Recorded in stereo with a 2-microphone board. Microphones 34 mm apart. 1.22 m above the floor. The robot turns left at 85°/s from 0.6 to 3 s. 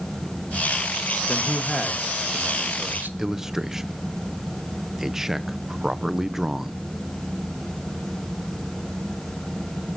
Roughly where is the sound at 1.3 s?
Ahead left.